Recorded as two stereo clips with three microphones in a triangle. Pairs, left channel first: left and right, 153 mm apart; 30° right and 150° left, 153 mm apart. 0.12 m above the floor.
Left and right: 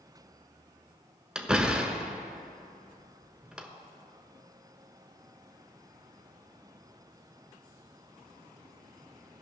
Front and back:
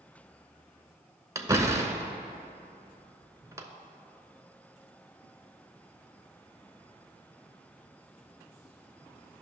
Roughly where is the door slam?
Behind.